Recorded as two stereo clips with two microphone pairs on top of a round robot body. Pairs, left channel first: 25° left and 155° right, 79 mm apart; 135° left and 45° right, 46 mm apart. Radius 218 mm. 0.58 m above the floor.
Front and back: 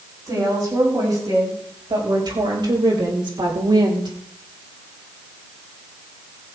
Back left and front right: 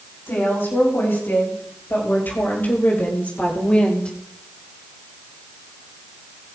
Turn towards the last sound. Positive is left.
turn(degrees=-155)